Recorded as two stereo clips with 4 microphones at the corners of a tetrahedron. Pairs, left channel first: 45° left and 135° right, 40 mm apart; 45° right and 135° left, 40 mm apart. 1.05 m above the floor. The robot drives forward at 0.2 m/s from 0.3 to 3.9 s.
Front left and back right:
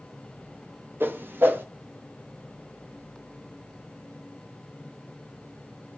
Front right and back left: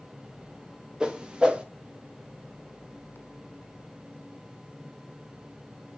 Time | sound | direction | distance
1.0 | a whoosh | 155° right | 0.7 m